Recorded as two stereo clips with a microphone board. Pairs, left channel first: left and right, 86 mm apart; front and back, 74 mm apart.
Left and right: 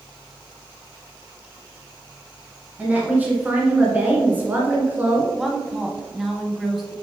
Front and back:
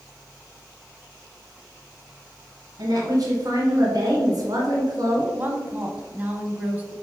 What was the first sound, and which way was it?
A woman speaking, 160° right.